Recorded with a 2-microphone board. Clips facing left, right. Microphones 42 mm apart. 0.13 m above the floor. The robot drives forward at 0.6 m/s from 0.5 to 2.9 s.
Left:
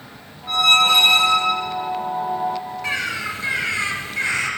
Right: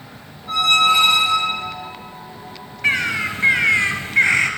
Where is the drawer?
I don't hear a drawer.